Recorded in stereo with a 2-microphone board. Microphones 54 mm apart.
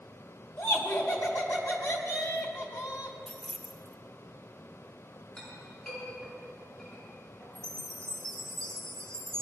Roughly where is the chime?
Centre.